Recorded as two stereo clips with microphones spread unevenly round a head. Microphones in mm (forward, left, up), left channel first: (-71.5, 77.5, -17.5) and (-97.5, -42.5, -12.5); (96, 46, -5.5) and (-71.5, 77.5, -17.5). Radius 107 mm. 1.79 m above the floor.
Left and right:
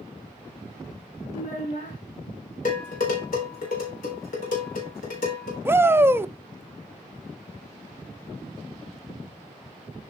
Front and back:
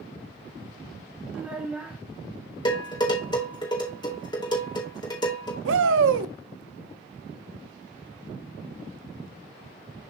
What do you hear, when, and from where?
1.3 s a child speaking: 90° left, 2.5 m
2.6 s dishes clattering: 50° left, 3.5 m
5.7 s a shout: 175° right, 0.6 m